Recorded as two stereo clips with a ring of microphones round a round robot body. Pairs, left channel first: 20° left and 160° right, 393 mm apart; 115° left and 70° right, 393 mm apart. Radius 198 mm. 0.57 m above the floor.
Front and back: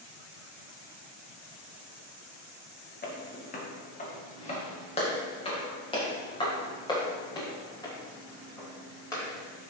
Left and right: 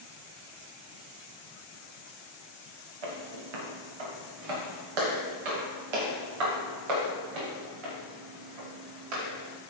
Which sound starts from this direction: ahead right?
Footsteps, at 3.0 s.